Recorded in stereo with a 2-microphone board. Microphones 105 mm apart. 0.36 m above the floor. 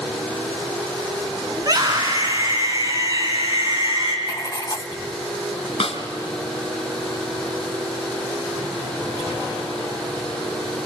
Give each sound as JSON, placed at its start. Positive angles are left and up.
{"t": 1.6, "sound": "a scream", "side_deg": -35, "distance_m": 4.0}
{"t": 4.3, "sound": "writing", "side_deg": 40, "distance_m": 0.6}
{"t": 5.8, "sound": "a snare drum", "side_deg": 70, "distance_m": 2.0}